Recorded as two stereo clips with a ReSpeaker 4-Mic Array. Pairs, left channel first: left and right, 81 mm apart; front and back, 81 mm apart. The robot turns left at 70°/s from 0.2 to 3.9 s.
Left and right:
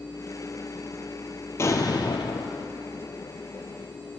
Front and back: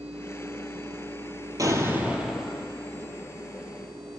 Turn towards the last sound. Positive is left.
turn(degrees=-20)